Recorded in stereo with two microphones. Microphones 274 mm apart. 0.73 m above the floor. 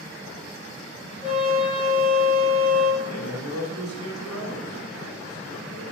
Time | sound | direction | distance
1.2 | a trumpet | 20° left (ahead or behind) | 3.5 m
3.0 | a man speaking | 70° right (ahead or behind) | 3 m